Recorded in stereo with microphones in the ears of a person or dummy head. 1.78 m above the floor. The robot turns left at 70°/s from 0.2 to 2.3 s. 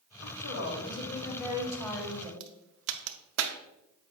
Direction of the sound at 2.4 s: 75° right (ahead or behind).